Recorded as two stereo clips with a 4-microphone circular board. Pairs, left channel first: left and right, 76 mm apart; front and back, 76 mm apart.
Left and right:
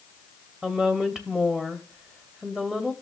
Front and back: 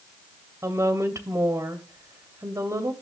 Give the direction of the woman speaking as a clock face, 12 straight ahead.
6 o'clock.